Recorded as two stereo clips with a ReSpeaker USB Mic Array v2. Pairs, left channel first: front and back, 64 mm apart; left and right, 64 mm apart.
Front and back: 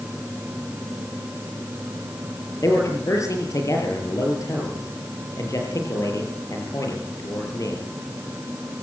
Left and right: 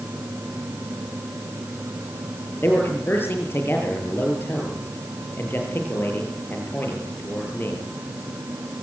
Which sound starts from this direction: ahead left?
A man speaking, at 2.6 s.